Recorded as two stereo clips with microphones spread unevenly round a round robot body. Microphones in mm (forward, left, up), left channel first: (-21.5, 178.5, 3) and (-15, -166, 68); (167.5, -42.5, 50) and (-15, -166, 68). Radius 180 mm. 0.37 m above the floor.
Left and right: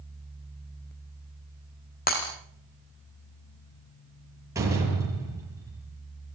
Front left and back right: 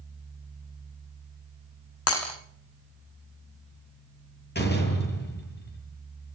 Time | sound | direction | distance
2.1 | breaking glass | 25° left | 6 m
4.5 | a door slam | 5° right | 8.5 m